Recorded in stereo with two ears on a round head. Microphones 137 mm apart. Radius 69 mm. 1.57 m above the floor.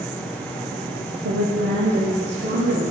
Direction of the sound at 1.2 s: 75° right (ahead or behind).